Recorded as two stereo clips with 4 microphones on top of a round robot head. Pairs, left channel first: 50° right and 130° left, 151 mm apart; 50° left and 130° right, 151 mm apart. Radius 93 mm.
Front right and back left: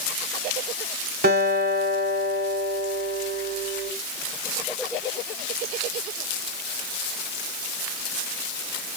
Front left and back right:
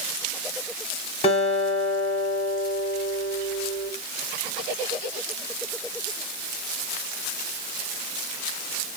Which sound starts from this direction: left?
A guitar, at 1.2 s.